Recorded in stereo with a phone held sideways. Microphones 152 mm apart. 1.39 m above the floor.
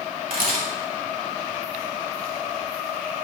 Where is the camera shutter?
75° right (ahead or behind), 2.5 m.